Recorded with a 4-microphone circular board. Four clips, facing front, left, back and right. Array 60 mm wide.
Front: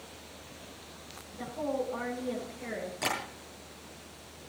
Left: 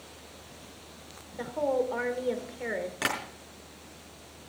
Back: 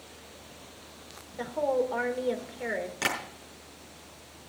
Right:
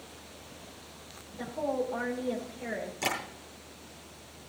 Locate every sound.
1.4 s a woman speaking: 135° left, 3 m
3.0 s tapping: 115° left, 5.5 m